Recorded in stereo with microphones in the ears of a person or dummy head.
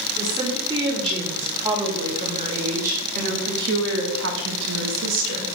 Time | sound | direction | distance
0.2 | a woman speaking | 20° right (ahead or behind) | 4 m